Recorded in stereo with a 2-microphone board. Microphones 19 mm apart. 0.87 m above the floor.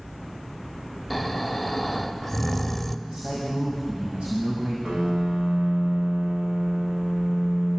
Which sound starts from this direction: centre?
Snoring, at 1.1 s.